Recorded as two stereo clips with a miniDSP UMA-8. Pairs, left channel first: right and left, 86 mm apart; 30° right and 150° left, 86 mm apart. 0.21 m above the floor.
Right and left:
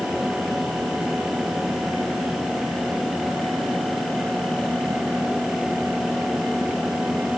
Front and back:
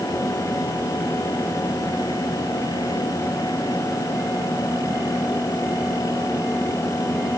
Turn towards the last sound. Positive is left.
No sound to turn to.